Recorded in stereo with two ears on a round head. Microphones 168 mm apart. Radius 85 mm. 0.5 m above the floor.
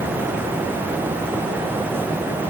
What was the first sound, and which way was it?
Only background noise.